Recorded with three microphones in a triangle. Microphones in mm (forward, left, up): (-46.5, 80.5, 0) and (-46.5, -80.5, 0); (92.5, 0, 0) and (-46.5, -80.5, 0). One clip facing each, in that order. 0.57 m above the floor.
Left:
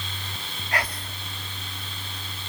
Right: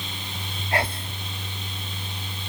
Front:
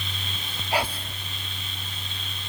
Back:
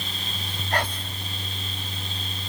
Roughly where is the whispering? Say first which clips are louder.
Right 4 dB, front 1 dB; ahead right.